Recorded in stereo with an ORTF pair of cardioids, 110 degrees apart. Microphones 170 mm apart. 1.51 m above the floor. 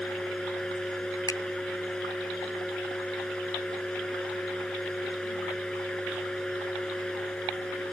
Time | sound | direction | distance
0.0 | a fan | 5° left | ?
1.3 | a finger snap | 20° left | ?